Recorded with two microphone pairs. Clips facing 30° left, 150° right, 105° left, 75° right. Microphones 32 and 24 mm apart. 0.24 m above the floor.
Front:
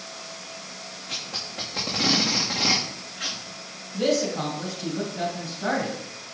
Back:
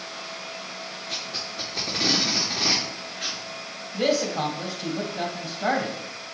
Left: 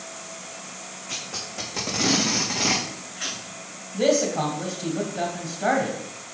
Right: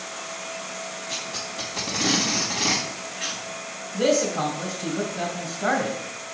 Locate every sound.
1.1 s tape being pulled: 60° left, 2.5 m
3.9 s a man speaking: 155° left, 1.8 m